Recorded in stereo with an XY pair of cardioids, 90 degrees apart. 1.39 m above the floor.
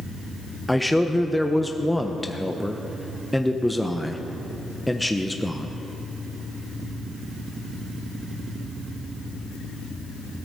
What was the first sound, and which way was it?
A man speaking, 5° left.